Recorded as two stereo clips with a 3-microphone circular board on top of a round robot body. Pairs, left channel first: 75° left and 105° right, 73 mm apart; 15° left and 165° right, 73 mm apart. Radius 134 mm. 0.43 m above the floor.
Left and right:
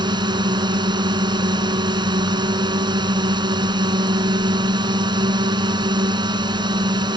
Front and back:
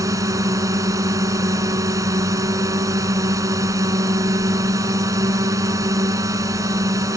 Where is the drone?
120° right.